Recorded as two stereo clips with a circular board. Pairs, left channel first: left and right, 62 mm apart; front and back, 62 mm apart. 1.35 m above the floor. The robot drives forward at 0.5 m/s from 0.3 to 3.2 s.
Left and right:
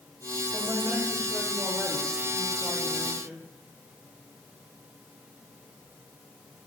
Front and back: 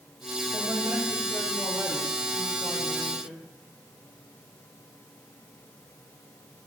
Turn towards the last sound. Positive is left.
turn(degrees=-175)